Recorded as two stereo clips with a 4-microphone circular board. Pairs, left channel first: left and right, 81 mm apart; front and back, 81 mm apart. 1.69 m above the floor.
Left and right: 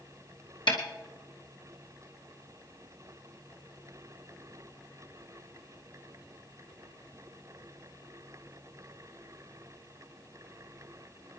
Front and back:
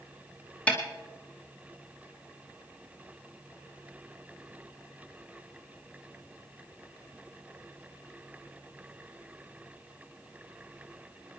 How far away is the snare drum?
About 2.5 m.